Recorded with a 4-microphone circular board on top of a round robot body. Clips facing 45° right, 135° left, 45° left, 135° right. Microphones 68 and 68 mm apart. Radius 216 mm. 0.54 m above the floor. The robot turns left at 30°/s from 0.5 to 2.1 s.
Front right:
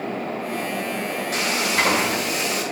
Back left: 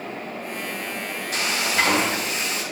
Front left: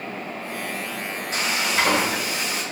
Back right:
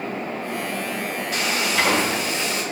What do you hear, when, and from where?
1.3 s frying: 10° right, 4 m; by 2.6 s 30° right, 4 m